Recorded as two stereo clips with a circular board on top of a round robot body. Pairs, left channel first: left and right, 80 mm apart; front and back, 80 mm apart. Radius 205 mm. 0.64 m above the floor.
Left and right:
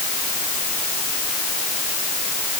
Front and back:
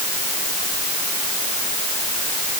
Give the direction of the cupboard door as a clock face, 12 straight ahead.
I don't hear a cupboard door.